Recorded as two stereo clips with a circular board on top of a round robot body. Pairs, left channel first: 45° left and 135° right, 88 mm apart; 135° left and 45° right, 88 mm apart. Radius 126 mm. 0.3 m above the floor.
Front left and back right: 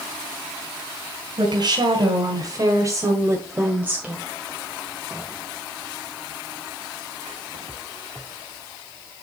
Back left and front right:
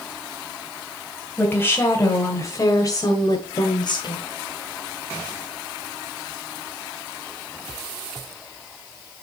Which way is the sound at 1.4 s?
160° right.